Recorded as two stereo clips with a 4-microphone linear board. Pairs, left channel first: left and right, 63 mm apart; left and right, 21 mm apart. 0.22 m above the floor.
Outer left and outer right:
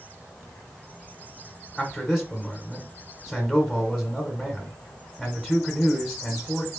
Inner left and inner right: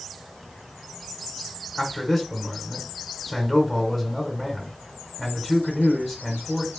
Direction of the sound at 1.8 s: 5° left (ahead or behind).